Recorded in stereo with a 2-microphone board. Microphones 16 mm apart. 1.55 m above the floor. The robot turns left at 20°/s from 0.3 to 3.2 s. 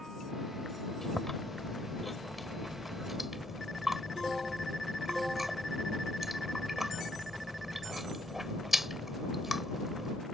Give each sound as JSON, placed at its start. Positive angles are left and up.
{"t": 1.0, "sound": "chewing", "side_deg": 20}